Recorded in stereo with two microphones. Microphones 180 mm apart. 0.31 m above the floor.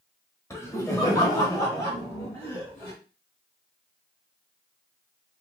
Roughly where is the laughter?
Centre.